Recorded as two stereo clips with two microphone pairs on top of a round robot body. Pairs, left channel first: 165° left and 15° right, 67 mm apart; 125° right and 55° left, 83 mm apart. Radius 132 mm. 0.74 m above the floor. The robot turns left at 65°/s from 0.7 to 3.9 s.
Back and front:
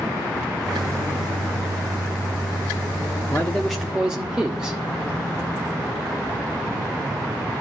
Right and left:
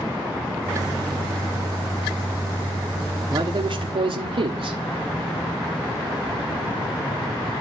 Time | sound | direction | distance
3.3 | a man speaking | 105° left | 1.5 m